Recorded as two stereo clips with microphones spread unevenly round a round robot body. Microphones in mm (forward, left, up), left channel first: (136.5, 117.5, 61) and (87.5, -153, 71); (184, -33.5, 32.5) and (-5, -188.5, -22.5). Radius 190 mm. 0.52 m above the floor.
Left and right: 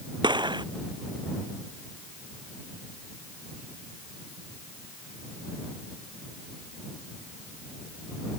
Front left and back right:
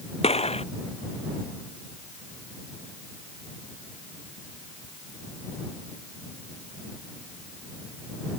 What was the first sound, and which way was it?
A gunshot, 25° right.